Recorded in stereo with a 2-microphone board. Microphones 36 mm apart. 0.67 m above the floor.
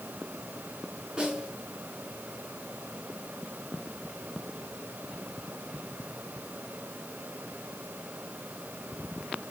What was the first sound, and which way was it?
A snare drum, 20° right (ahead or behind).